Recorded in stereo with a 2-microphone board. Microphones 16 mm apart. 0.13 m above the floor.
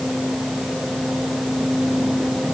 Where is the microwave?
I don't hear a microwave.